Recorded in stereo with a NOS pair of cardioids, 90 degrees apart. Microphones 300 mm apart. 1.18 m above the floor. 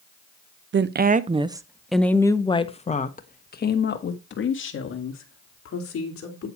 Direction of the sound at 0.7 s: 40° right.